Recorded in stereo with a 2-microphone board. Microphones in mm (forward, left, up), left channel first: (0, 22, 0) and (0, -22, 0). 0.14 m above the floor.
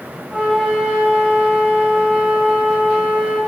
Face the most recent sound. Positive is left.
turn(degrees=-20)  # may be behind; listen again after turning